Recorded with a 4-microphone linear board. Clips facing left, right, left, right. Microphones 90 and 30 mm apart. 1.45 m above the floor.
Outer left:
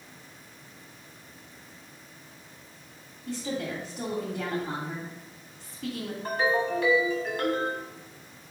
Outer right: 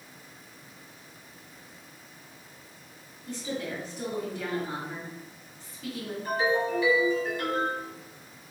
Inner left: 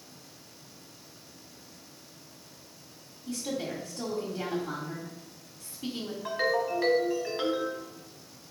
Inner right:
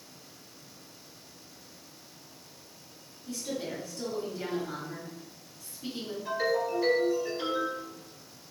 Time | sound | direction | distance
3.3 | a woman speaking | 65° left (ahead or behind) | 1.9 m
6.2 | a ringtone | 60° left (ahead or behind) | 1.2 m